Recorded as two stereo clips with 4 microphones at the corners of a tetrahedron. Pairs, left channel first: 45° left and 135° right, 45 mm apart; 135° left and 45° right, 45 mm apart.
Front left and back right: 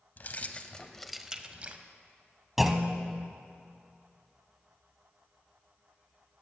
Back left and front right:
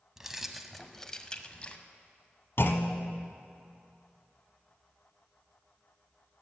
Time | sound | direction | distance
0.2 | keys jangling | 30° left | 0.8 m
2.6 | a clunk | 140° left | 0.8 m